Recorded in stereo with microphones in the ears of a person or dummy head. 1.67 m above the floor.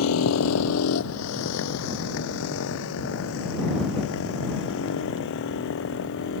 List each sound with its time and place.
0.0 s a motorcycle: 85° left; by 6.4 s 65° left (ahead or behind)